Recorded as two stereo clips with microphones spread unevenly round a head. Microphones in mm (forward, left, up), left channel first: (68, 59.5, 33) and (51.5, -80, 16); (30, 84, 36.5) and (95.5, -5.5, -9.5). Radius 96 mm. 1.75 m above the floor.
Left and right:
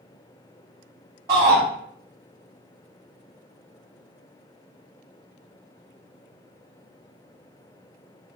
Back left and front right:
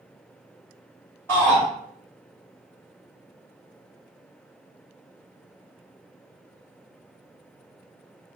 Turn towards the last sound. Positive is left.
turn(degrees=-175)